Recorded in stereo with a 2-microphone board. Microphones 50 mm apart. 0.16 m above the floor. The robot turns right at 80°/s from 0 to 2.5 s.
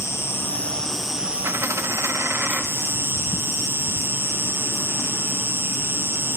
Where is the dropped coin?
125° right, 1.1 m; by 2.6 s 40° right, 1.1 m.